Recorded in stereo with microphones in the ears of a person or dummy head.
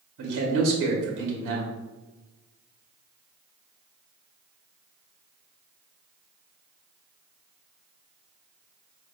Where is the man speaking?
65° right (ahead or behind), 1.0 m.